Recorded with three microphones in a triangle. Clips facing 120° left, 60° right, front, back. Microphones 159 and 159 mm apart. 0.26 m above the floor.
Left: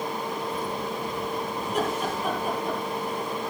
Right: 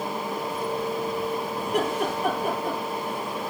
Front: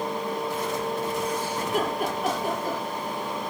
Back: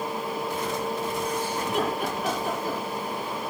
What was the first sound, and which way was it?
Laughter, 40° right.